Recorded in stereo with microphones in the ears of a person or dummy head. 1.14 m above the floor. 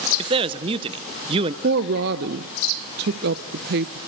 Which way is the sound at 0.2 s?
25° right (ahead or behind).